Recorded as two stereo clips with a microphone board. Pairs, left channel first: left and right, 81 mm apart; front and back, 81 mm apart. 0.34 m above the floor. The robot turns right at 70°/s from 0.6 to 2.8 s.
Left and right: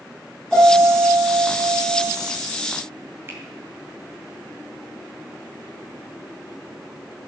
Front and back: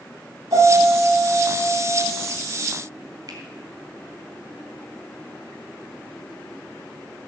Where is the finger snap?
150° right, 3.5 m.